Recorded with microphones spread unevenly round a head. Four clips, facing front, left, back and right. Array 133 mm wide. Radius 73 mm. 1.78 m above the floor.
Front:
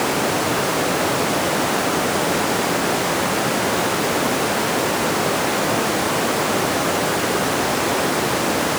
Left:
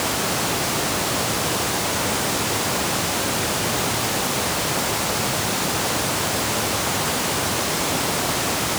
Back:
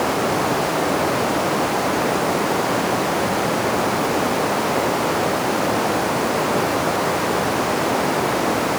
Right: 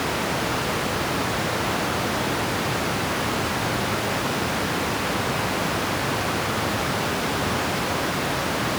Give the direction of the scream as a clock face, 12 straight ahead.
I don't hear a scream.